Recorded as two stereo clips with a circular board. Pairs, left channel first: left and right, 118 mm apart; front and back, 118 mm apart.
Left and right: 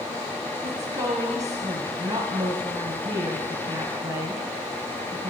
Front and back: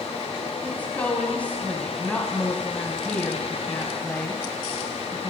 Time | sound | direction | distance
0.6 | a woman speaking | 70° right | 1.3 m